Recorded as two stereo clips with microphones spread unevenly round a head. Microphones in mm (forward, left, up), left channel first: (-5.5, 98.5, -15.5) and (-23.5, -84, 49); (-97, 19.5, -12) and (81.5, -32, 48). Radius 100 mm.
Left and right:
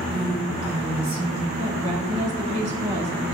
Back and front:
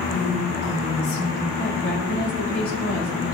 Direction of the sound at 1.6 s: 150° right.